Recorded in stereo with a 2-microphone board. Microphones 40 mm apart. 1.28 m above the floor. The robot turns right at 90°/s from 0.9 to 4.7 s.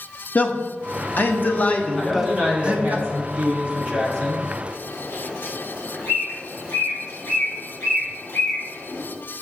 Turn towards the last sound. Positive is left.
turn(degrees=70)  # may be behind; listen again after turning